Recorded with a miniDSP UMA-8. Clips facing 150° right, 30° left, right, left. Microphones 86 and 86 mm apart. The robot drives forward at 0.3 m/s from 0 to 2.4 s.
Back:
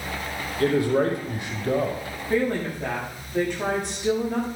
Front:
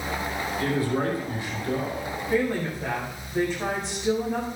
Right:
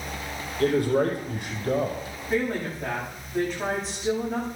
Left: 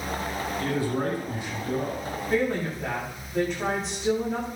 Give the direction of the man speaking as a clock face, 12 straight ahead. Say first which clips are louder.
Back 6 dB, right 7 dB; 4 o'clock.